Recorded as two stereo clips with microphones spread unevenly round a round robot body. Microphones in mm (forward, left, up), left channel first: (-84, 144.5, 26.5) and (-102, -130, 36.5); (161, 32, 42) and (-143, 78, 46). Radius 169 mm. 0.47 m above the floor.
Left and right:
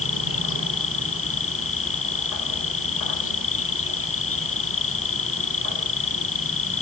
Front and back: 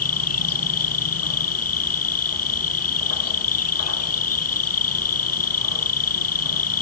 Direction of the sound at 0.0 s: 30° left.